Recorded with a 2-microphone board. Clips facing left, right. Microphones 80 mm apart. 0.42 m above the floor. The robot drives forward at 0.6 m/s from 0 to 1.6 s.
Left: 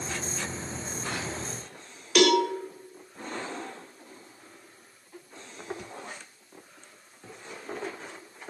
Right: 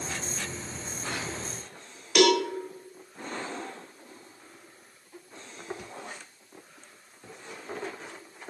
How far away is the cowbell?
About 1.2 m.